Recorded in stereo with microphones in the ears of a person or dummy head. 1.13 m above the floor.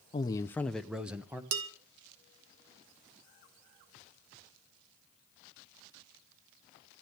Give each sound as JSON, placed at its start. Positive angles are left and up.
{"t": 0.1, "sound": "a man speaking", "side_deg": 25, "distance_m": 0.7}
{"t": 1.5, "sound": "dishes clattering", "side_deg": -60, "distance_m": 2.5}